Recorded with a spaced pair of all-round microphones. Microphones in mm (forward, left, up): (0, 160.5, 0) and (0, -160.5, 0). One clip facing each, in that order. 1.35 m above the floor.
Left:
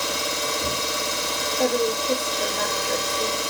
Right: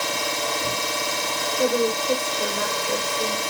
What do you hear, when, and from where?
0.0 s an engine running: 20° left (ahead or behind), 1.1 m
1.6 s a woman speaking: 10° right (ahead or behind), 0.9 m